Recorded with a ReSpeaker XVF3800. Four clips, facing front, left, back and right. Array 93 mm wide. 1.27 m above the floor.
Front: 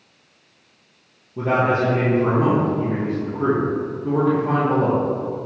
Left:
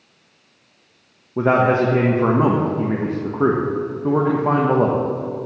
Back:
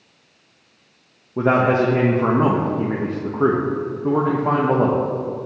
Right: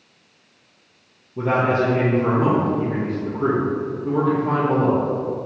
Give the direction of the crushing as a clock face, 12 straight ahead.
I don't hear crushing.